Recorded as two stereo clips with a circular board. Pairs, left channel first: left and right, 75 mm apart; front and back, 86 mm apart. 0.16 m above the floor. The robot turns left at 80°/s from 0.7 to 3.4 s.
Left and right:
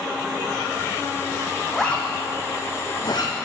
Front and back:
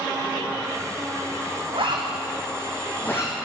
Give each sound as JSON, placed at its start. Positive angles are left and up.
{"t": 1.7, "sound": "a zipper", "azimuth_deg": 180, "distance_m": 1.9}